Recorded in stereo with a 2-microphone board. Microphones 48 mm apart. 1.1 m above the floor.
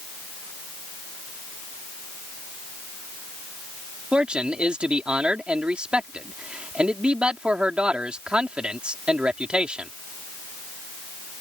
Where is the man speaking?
20° right (ahead or behind).